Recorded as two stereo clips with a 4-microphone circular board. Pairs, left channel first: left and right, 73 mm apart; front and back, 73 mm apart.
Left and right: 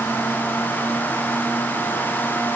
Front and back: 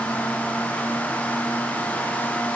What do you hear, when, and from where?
Only background noise.